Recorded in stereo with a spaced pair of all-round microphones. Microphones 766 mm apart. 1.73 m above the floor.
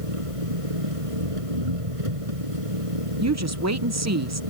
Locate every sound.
0.0 s an engine running: 45° right (ahead or behind)
3.2 s a woman speaking: 20° right (ahead or behind)